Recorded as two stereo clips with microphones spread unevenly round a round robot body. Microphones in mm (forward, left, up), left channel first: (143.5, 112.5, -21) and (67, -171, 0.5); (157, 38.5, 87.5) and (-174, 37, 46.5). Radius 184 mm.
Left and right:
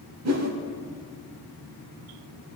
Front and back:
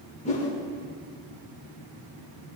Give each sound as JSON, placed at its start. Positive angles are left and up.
{"t": 0.2, "sound": "a whoosh", "azimuth_deg": -70, "distance_m": 1.4}